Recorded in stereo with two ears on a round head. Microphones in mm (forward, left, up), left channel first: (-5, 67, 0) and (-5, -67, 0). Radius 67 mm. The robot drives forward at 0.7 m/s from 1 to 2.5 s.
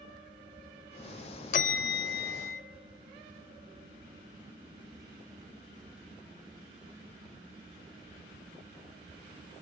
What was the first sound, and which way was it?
A bell, 55° left (ahead or behind).